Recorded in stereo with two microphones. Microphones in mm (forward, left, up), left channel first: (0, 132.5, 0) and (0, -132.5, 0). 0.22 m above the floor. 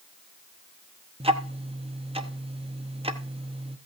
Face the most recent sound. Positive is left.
turn(degrees=-20)  # may be behind; listen again after turning